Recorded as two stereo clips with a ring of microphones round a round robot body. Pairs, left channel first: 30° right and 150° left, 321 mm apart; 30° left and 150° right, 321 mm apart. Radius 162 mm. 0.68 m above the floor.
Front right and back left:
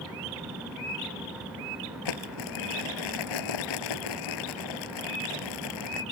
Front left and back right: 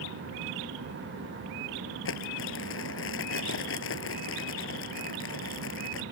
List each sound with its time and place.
2.0 s crumpling: 25° right